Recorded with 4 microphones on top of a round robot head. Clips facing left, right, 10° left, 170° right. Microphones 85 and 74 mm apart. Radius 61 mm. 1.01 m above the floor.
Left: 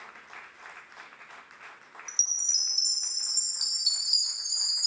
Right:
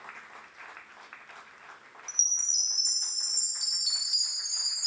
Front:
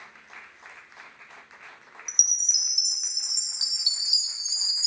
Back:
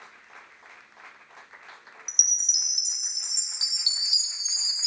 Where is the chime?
160° left, 0.8 m.